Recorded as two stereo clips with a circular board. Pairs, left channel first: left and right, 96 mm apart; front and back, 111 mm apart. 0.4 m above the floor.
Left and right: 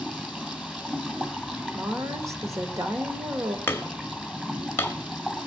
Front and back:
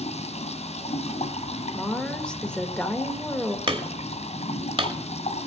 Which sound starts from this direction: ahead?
Running water, at 0.0 s.